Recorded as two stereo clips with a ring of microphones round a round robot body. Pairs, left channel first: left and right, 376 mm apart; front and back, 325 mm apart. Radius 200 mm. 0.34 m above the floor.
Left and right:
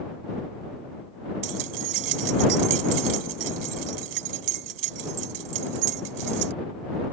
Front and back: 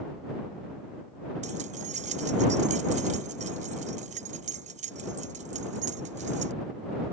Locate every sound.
1.4 s keys jangling: 115° right